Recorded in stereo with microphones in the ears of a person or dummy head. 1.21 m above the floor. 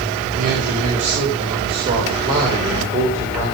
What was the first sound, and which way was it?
A man speaking, 40° right (ahead or behind).